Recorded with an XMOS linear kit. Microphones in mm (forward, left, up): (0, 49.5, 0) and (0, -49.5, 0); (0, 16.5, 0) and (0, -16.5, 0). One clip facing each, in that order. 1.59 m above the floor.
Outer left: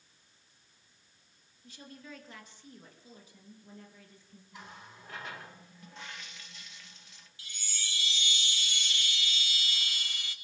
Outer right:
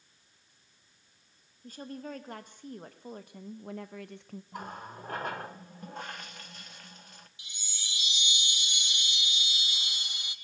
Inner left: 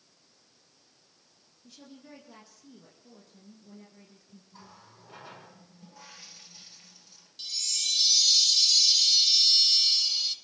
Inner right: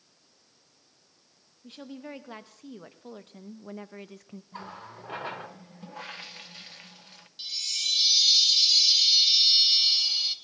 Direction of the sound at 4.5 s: 50° right (ahead or behind).